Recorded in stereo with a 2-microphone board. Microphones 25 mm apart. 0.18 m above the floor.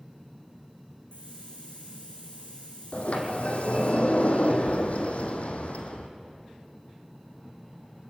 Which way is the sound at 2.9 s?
60° left (ahead or behind).